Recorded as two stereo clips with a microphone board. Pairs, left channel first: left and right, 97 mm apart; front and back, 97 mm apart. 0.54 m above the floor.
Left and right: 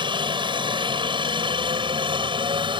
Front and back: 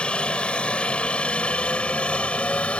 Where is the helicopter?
75° right.